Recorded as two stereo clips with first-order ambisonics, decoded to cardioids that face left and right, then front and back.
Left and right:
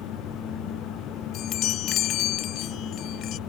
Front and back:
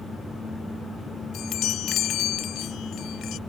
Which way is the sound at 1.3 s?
45° left.